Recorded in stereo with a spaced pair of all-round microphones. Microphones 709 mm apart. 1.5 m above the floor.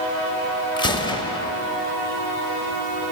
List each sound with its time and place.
0.8 s a gunshot: 5° left (ahead or behind), 0.7 m